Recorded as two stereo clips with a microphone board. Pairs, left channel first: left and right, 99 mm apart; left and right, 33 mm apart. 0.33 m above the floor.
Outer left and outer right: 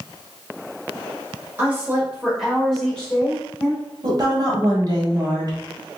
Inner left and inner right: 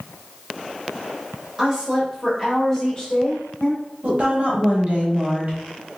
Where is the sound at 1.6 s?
20° right (ahead or behind), 1.3 m; by 3.8 s 30° left (ahead or behind), 1.3 m.